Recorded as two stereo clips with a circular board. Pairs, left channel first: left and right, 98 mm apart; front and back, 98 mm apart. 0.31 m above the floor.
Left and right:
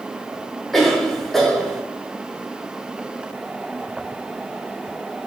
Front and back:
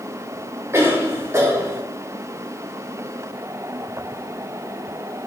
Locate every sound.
0.7 s a cough: 175° left, 1.0 m